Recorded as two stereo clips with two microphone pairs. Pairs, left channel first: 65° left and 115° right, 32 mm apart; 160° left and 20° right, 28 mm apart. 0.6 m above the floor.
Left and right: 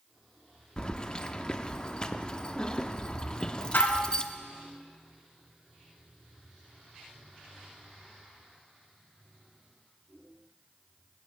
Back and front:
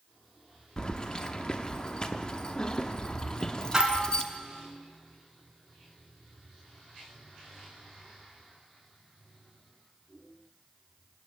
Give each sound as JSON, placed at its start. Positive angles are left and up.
{"t": 0.8, "sound": "keys jangling", "azimuth_deg": 115, "distance_m": 0.7}
{"t": 3.7, "sound": "dishes clattering", "azimuth_deg": 55, "distance_m": 3.5}